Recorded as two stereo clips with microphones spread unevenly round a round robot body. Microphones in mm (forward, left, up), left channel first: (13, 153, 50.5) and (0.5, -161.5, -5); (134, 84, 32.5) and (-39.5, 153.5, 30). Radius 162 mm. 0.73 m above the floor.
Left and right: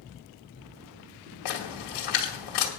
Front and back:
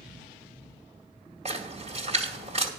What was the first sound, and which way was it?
A splash, 105° left.